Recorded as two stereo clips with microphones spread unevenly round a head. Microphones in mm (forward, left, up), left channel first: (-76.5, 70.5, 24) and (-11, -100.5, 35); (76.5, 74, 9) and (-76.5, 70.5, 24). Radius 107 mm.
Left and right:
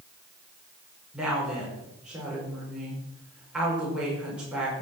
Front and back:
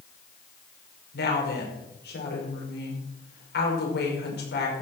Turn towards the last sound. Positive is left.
turn(degrees=15)